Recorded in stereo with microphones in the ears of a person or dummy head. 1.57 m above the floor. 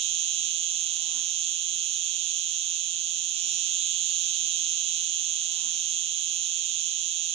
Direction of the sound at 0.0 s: 30° right (ahead or behind).